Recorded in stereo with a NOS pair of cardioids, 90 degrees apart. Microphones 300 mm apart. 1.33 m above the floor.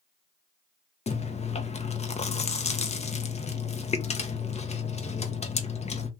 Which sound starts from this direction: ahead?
Chewing, at 1.1 s.